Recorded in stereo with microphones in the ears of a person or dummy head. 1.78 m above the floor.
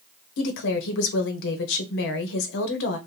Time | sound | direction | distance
0.4 | a woman speaking | 65° left (ahead or behind) | 0.8 m